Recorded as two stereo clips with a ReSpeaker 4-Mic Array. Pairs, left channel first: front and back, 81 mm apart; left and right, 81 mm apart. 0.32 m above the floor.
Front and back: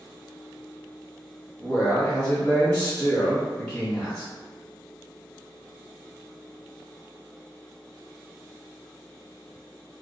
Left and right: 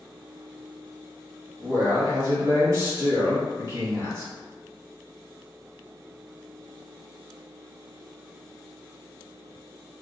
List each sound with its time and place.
1.6 s a man speaking: 70° right, 1.2 m